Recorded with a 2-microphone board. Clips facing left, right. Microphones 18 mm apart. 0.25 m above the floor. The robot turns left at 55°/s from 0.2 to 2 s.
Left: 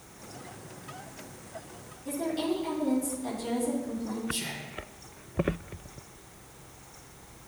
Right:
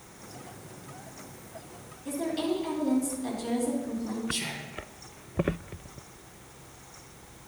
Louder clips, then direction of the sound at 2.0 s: Even; 15° right (ahead or behind).